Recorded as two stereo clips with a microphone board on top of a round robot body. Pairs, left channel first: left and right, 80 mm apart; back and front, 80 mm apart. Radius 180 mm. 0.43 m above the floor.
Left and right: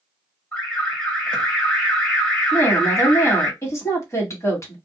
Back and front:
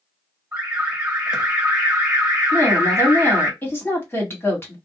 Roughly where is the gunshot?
No gunshot in this recording.